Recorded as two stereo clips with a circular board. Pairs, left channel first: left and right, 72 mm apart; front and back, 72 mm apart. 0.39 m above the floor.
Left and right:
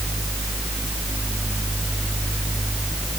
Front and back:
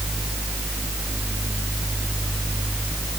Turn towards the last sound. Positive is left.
No sound to turn to.